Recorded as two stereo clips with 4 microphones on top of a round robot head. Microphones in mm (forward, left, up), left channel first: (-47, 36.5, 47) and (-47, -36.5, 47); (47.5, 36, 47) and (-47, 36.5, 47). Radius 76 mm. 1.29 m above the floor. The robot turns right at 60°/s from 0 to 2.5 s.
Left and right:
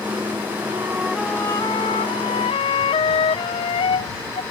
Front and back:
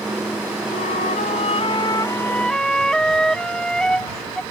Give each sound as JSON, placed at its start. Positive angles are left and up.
{"t": 0.7, "sound": "a flute", "azimuth_deg": -25}